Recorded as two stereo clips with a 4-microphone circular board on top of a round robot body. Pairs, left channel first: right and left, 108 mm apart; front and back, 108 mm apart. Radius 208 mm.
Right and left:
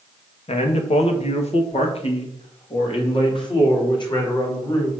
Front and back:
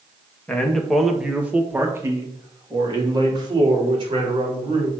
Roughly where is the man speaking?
Right.